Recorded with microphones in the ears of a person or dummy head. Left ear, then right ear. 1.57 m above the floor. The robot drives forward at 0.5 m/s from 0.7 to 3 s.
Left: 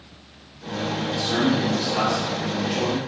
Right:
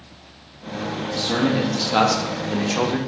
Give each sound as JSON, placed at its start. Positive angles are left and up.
{"t": 1.1, "sound": "a man speaking", "side_deg": -40, "distance_m": 0.8}